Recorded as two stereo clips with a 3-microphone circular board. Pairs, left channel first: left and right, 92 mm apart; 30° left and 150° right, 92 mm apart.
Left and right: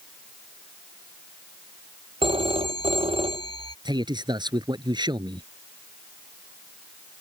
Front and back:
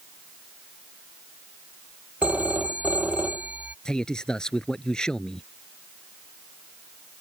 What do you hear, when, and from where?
2.2 s a phone ringing: 75° right
3.9 s a man speaking: 55° right